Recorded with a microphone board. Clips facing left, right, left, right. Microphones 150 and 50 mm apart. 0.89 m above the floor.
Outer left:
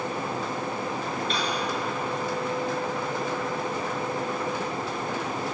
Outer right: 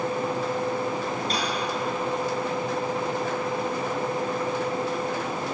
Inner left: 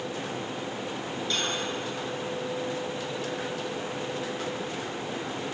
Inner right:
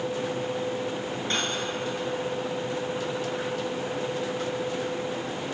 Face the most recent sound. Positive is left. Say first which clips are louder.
# outer right 1 dB, inner right 1 dB
turn(degrees=-40)  # may be behind; listen again after turning